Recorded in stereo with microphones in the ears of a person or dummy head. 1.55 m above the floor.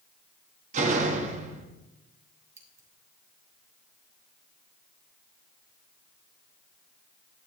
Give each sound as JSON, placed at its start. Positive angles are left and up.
{"t": 0.7, "sound": "a door slam", "side_deg": -45, "distance_m": 1.7}
{"t": 2.6, "sound": "scissors", "side_deg": -20, "distance_m": 2.5}